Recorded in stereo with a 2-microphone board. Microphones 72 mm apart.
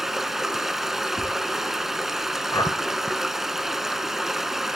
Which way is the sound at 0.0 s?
5° right (ahead or behind).